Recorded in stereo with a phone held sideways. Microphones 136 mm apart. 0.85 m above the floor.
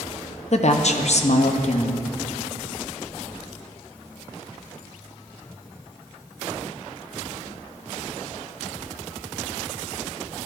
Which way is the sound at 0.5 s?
55° left (ahead or behind).